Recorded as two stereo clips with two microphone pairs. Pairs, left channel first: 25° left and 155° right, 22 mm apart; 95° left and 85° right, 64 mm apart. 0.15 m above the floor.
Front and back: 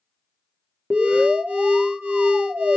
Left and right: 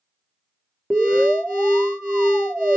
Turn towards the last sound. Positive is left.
turn(degrees=-170)